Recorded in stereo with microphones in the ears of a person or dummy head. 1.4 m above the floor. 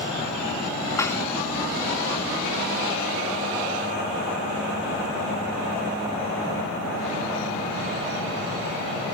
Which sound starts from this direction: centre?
Dishes clattering, at 1.0 s.